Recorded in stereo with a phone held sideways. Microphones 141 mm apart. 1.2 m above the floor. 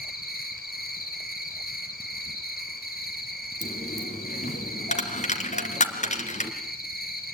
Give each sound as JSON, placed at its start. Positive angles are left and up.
{"t": 0.0, "sound": "an insect", "side_deg": 80, "distance_m": 6.0}
{"t": 3.6, "sound": "a dropped coin", "side_deg": 50, "distance_m": 2.5}